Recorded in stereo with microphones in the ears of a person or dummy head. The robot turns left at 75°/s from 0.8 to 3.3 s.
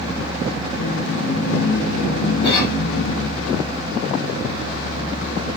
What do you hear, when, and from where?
2.4 s a cough: 35° left (ahead or behind), 1.5 m; by 2.8 s 10° left (ahead or behind), 1.5 m